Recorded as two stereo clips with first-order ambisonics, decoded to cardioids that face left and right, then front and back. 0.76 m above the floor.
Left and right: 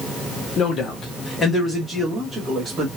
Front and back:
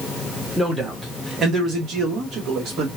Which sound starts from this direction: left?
A man speaking, at 0.6 s.